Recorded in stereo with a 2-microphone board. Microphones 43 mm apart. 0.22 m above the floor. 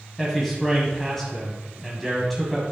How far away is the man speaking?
About 1.3 m.